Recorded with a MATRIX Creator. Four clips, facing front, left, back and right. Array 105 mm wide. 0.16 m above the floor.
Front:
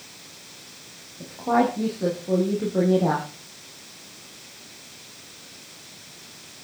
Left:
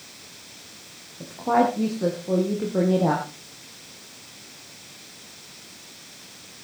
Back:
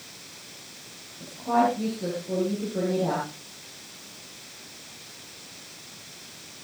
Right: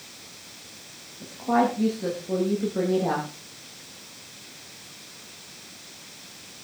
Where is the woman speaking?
60° left, 6.5 m.